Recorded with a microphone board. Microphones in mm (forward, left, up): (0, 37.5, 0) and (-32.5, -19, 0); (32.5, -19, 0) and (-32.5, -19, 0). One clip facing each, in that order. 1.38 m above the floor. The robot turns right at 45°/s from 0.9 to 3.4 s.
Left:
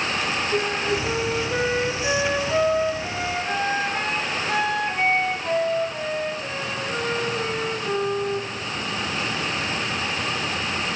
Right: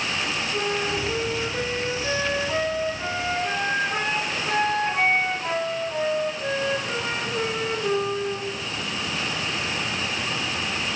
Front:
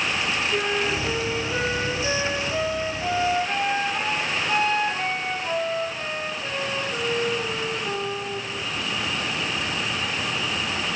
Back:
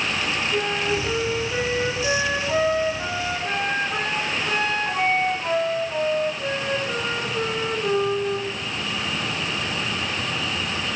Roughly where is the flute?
Left.